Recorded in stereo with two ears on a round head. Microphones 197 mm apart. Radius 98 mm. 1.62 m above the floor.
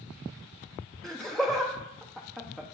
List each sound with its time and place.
1.0 s laughter: centre (ahead or behind), 0.7 m